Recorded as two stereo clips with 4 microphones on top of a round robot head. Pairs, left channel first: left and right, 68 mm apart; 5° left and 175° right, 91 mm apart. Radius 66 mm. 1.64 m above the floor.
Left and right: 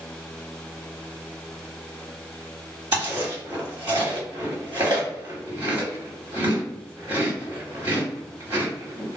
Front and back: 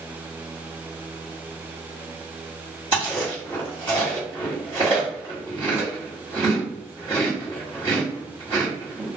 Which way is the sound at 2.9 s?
135° right.